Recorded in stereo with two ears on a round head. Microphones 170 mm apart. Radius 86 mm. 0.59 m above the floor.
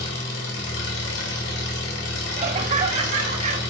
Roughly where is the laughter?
Right.